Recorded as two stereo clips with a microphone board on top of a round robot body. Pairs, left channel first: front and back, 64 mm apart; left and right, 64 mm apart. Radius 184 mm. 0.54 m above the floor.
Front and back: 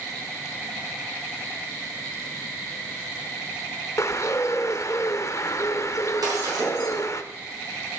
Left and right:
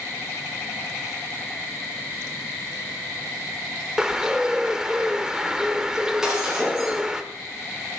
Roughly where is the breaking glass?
Behind.